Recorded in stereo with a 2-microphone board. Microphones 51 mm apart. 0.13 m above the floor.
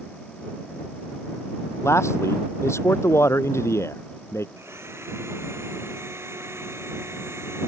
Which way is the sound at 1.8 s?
60° left (ahead or behind).